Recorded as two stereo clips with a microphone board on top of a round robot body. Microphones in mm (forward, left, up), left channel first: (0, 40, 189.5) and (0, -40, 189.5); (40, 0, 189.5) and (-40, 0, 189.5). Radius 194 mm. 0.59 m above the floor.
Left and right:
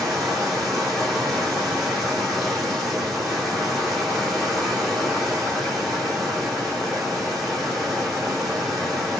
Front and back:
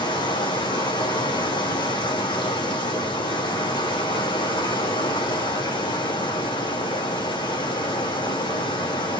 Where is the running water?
Straight ahead, 7 m.